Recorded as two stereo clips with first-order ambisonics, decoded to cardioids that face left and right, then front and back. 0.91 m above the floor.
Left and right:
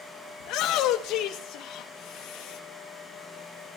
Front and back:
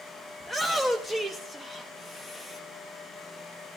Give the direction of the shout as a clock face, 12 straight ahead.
9 o'clock.